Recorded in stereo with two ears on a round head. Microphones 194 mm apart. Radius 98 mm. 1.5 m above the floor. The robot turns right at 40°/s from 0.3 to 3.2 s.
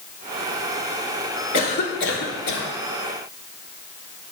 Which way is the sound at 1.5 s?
35° left.